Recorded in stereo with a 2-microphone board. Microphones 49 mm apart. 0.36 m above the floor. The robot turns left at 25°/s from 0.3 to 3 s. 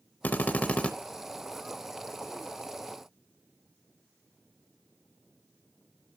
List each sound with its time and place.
0.2 s a drill: 40° left (ahead or behind), 0.6 m; by 0.9 s 25° left (ahead or behind), 0.6 m